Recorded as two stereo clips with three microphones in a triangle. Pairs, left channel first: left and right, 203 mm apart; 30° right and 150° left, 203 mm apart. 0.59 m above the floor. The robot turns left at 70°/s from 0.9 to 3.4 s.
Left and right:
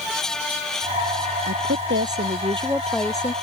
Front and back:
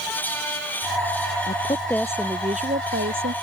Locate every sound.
1.5 s a woman speaking: 80° right; by 3.3 s 150° left